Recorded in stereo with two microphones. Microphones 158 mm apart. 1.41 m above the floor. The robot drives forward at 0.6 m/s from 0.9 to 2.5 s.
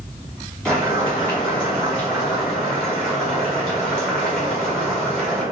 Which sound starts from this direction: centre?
Boiling, at 0.7 s.